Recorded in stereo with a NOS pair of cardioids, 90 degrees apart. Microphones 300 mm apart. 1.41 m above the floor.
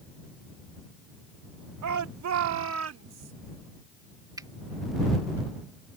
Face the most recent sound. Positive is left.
turn(degrees=-10)